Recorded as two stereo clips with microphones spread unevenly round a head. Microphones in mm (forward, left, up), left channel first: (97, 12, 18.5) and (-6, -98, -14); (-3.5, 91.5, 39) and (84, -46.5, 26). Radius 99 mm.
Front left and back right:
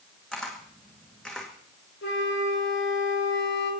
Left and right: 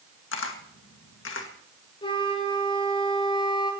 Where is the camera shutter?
135° left, 2.0 m.